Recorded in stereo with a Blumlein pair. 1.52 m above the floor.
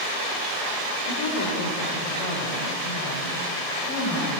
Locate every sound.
1.1 s a woman speaking: 60° left, 4 m; by 4.4 s 40° left, 7.5 m